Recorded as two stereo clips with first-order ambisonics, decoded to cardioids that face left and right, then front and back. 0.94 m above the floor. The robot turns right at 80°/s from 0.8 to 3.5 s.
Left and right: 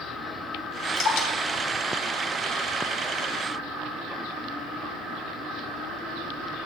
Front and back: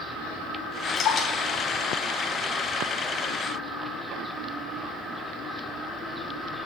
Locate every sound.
1.0 s dripping: 40° left, 3.5 m; by 3.0 s 155° right, 3.5 m